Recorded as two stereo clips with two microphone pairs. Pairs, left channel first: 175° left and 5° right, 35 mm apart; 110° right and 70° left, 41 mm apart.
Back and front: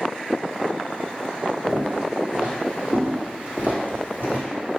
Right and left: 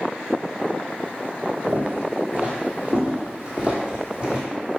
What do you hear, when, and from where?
1.7 s footsteps: 50° left, 2.0 m; by 4.4 s straight ahead, 2.5 m